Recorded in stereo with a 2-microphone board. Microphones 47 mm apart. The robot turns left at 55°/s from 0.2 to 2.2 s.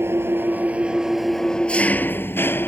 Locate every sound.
0.0 s an engine running: 120° right; by 2.7 s 130° left